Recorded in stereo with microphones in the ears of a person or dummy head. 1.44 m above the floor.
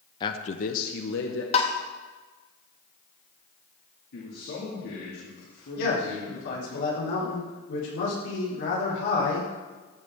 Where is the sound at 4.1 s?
60° left (ahead or behind), 2.5 m.